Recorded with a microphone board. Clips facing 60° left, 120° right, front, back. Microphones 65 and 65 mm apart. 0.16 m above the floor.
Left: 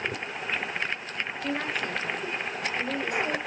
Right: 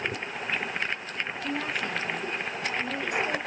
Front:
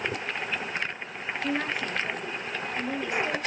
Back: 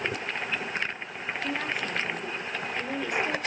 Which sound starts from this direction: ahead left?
A woman speaking, at 1.4 s.